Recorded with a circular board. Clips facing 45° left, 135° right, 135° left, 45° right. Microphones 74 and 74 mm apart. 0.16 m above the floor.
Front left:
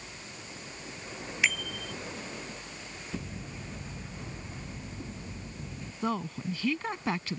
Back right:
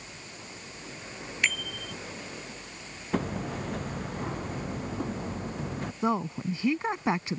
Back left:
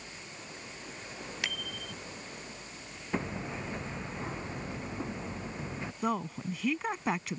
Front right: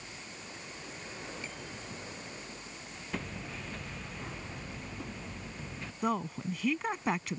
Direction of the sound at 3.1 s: 155° right.